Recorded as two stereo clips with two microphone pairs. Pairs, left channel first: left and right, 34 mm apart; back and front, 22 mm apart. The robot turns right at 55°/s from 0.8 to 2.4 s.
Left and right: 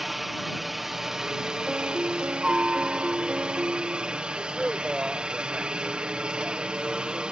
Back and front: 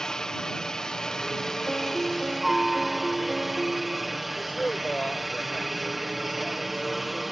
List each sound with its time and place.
0.0 s a helicopter: 165° right; by 7.3 s 80° right
1.7 s a piano: 140° right; by 4.2 s 100° right
4.4 s a man speaking: 150° right